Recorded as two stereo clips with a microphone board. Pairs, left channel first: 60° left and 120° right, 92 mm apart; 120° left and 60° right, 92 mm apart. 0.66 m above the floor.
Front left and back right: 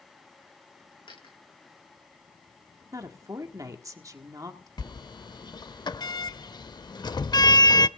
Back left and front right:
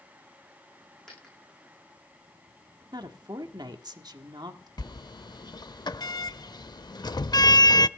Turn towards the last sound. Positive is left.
turn(degrees=90)